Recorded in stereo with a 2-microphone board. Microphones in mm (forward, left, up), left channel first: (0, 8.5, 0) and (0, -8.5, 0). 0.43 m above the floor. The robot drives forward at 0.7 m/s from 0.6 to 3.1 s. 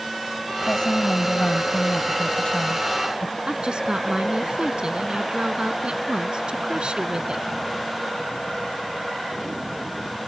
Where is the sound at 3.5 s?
65° right (ahead or behind).